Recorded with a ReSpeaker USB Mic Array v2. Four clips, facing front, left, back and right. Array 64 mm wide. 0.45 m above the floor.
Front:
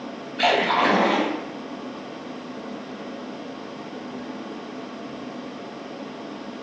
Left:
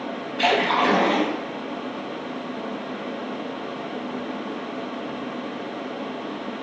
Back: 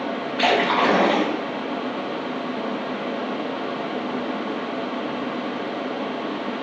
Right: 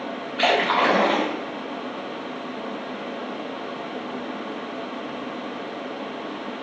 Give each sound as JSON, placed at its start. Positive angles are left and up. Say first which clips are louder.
{"t": 0.4, "sound": "a splash", "louder": "even, even", "azimuth_deg": -120, "distance_m": 1.8}